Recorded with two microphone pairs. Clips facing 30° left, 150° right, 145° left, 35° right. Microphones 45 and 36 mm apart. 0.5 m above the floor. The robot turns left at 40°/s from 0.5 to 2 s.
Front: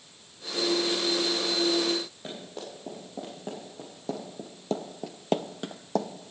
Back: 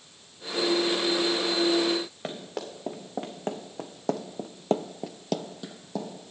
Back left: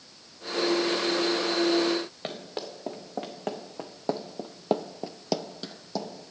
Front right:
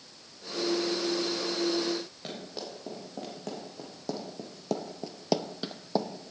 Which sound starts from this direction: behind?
Running footsteps, at 2.2 s.